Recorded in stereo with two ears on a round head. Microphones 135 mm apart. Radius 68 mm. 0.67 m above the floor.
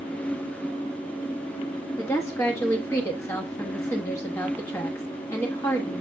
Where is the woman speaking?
15° left (ahead or behind), 1.0 m.